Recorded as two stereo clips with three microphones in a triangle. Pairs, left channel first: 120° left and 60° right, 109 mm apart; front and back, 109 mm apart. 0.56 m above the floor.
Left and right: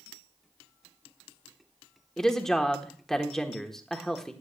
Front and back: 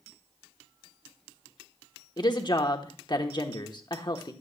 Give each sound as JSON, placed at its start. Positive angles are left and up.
{"t": 2.2, "sound": "a woman speaking", "azimuth_deg": 35, "distance_m": 1.1}